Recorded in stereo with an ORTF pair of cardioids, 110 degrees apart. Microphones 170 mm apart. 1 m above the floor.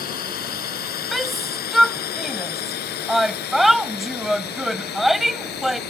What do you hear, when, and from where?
0.0 s a drone: 60° left; by 5.9 s 75° left
1.1 s a shout: straight ahead